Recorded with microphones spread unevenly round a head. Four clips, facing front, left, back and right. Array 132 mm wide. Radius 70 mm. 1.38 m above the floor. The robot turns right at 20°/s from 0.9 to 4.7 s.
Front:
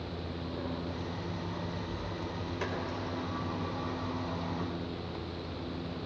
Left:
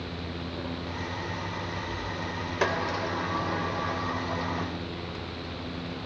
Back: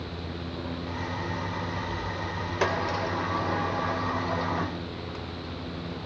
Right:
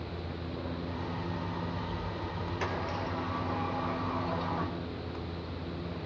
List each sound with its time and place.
2.6 s a sliding door: 135° left, 3.5 m; by 4.8 s 175° left, 3.5 m